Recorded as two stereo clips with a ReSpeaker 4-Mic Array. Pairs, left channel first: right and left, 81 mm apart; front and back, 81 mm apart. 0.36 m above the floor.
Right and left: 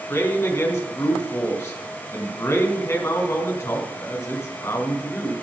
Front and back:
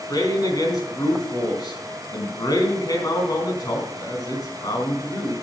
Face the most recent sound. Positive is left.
turn(degrees=-35)